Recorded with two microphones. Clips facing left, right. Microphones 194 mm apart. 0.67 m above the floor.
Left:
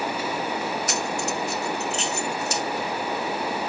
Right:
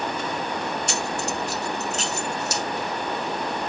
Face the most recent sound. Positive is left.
turn(degrees=-40)  # may be behind; listen again after turning